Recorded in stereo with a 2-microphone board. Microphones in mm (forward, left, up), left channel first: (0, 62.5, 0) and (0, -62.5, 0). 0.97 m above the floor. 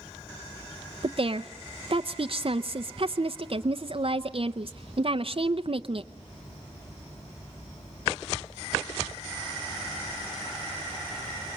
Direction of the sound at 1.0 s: 50° right (ahead or behind).